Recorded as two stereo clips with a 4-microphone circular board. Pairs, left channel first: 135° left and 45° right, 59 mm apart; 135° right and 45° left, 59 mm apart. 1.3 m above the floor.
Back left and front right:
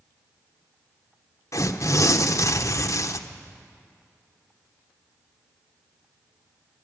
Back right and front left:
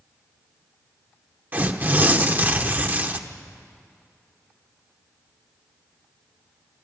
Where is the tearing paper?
105° left, 0.8 m.